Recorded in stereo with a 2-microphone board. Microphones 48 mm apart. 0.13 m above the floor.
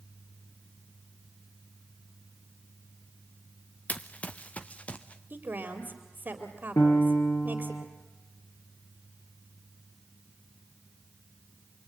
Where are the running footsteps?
30° left (ahead or behind), 0.9 m; by 5.2 s 25° left (ahead or behind), 1.7 m.